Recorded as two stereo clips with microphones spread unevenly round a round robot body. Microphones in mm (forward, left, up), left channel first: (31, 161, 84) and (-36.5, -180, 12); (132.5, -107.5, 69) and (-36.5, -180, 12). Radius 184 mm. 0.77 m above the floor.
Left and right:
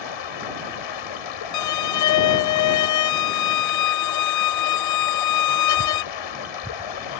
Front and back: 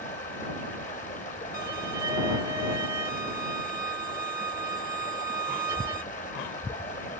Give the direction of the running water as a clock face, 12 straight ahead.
9 o'clock.